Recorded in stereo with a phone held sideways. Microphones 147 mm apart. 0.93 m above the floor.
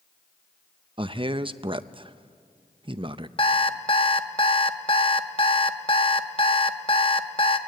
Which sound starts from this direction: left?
An alarm clock, at 3.4 s.